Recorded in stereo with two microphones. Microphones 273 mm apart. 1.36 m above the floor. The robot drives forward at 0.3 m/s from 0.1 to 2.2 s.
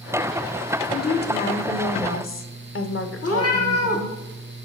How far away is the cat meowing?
About 1.4 m.